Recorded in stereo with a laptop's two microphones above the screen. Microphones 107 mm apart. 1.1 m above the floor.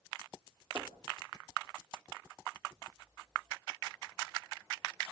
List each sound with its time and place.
0.8 s knocking: 35° right (ahead or behind), 1.6 m